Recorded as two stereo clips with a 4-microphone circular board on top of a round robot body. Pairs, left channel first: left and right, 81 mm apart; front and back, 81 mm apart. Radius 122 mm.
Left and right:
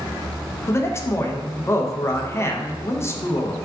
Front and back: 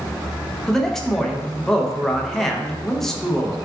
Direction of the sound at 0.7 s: 80° left.